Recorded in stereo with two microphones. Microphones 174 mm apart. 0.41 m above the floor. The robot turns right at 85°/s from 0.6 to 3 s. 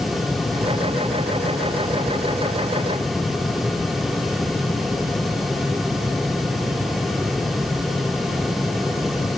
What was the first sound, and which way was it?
Only background noise.